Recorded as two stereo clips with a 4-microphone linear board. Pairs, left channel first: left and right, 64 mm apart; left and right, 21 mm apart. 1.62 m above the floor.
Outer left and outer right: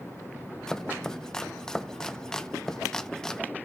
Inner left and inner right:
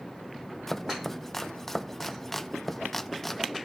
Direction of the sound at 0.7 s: 10° left (ahead or behind).